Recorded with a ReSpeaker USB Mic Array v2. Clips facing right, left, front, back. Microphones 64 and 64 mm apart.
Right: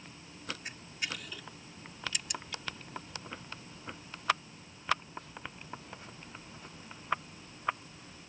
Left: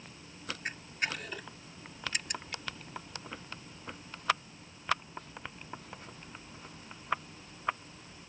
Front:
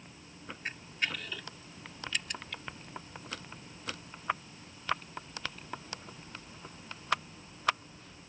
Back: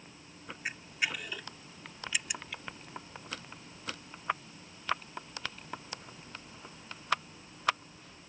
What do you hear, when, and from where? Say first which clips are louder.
0.7 s a camera shutter: left 8 dB, back 1 dB; 105° left